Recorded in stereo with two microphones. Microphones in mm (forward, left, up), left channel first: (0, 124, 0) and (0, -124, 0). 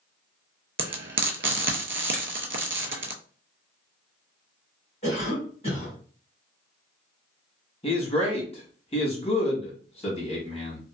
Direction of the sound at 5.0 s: 25° left (ahead or behind).